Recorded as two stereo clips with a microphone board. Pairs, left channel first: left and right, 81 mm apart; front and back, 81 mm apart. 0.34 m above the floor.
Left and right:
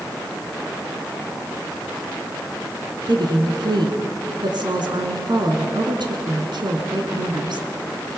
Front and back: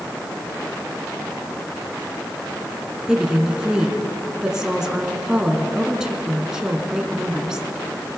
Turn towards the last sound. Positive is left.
turn(degrees=-100)